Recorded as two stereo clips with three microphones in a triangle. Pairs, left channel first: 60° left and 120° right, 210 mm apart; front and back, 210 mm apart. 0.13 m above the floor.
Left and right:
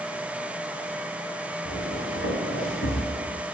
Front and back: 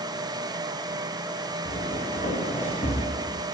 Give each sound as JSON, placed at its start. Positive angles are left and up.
{"t": 1.6, "sound": "footsteps", "azimuth_deg": 50, "distance_m": 2.0}